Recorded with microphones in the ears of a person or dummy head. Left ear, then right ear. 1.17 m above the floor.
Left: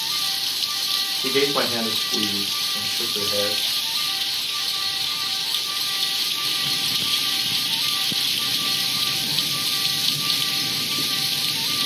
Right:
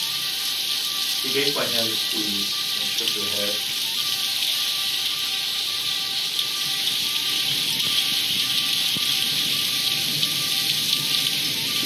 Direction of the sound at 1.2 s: 45° left (ahead or behind).